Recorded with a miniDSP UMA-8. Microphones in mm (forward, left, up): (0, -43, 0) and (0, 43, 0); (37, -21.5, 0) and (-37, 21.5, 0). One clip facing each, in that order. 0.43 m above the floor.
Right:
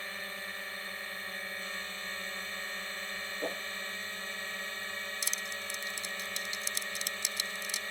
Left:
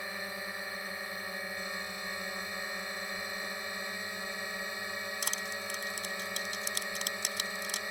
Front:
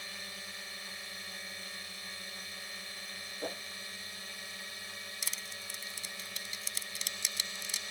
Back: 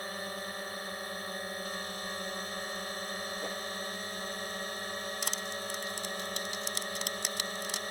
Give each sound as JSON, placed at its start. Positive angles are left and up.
{"t": 0.0, "sound": "a drone", "azimuth_deg": 160}
{"t": 3.4, "sound": "a whoosh", "azimuth_deg": -105}
{"t": 5.2, "sound": "crushing", "azimuth_deg": 120}